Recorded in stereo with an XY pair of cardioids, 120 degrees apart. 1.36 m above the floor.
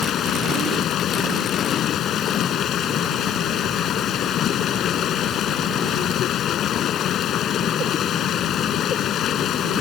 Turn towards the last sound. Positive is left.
turn(degrees=60)